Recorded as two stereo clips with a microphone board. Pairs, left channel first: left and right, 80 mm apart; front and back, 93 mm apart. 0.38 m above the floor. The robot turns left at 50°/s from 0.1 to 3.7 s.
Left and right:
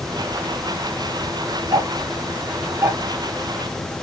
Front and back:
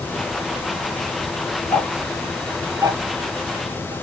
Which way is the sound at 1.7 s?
70° right.